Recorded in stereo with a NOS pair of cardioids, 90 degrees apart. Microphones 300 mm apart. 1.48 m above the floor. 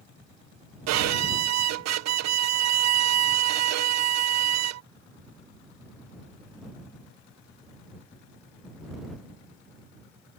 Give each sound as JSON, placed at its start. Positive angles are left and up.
{"t": 0.9, "sound": "a violin", "azimuth_deg": -65}